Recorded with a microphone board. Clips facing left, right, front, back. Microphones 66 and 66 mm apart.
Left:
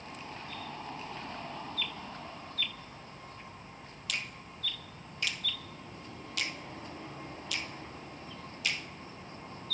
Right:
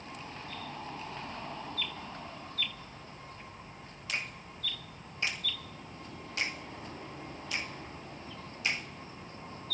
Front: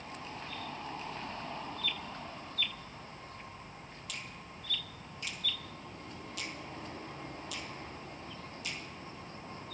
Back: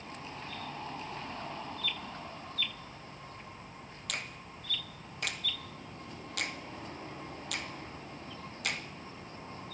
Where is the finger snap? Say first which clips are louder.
Right 2 dB, back 6 dB; 150° right, 1.5 m.